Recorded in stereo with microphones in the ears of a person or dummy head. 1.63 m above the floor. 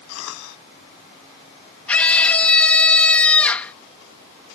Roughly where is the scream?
Centre.